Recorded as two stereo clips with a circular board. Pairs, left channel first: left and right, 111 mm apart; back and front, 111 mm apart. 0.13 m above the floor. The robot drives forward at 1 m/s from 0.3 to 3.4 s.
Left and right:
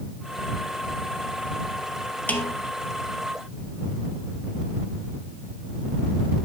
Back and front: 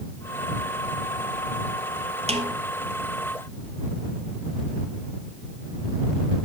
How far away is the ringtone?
I don't hear a ringtone.